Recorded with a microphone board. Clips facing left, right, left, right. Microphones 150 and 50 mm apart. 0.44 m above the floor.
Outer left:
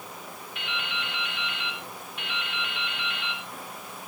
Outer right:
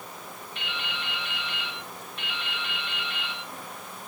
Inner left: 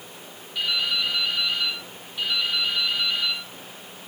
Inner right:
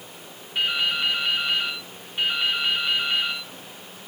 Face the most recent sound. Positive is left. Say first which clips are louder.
# outer left 2 dB, inner right 2 dB
turn(degrees=-30)  # may be behind; listen again after turning